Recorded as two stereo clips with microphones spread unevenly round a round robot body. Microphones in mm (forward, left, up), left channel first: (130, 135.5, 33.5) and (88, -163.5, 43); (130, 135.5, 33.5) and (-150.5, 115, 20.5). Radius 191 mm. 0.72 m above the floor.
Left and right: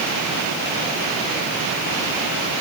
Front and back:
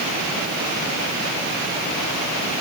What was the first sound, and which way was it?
Only background noise.